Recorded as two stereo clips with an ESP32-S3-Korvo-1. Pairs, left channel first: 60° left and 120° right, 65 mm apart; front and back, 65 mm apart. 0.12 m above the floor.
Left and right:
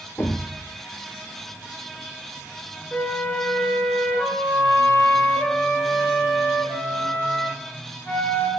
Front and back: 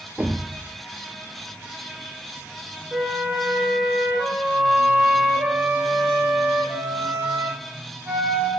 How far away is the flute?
About 1.5 m.